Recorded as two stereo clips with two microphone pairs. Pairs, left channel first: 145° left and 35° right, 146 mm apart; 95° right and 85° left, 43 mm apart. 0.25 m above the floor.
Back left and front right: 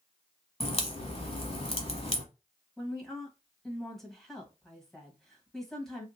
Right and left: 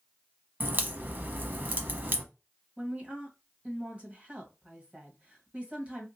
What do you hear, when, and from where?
0.6 s a crack: 115° left, 0.9 m
2.8 s a woman speaking: 60° left, 1.4 m